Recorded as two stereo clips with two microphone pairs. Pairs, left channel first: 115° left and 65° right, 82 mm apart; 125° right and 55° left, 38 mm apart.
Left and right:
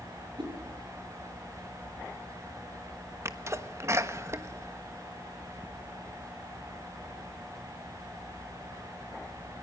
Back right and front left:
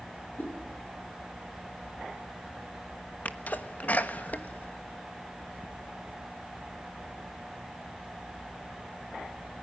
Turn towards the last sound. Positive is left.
turn(degrees=-105)